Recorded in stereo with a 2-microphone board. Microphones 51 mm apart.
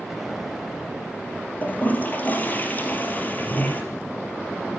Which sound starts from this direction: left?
A toilet flushing, at 1.6 s.